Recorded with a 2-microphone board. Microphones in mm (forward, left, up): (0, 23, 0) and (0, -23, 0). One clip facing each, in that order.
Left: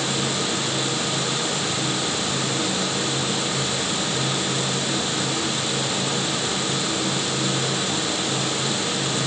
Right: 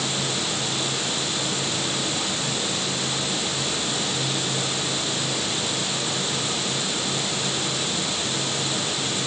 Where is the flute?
No flute in this recording.